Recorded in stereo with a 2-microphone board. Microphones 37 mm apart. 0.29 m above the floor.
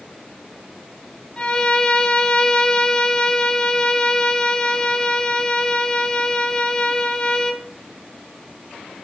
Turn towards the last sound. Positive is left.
turn(degrees=25)  # may be behind; listen again after turning